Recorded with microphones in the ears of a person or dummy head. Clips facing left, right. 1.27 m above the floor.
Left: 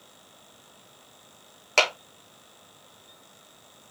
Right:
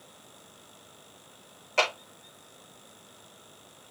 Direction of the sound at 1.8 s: 80° left.